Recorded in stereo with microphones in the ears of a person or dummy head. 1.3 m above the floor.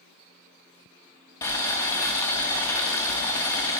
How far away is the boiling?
About 1.0 m.